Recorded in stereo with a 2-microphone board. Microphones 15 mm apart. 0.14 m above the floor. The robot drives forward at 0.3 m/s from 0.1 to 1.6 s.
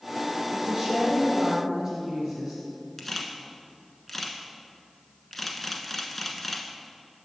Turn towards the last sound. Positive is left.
turn(degrees=10)  # may be behind; listen again after turning